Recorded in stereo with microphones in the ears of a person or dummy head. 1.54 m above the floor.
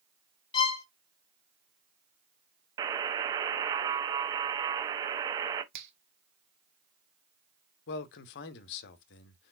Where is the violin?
25° left (ahead or behind), 0.9 m.